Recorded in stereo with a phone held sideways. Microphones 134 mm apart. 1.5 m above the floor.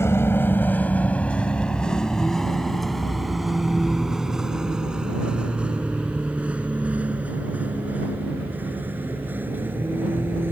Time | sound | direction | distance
0.0 | a vehicle | 20° left (ahead or behind) | ?